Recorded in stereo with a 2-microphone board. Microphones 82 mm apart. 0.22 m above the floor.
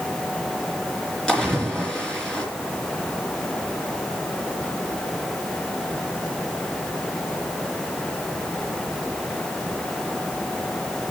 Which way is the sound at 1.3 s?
10° left (ahead or behind).